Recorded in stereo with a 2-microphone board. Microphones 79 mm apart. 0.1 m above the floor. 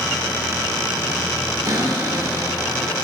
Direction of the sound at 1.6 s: 40° right (ahead or behind).